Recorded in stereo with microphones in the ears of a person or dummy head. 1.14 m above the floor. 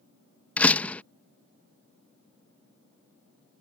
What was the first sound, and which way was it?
A door slam, 5° left (ahead or behind).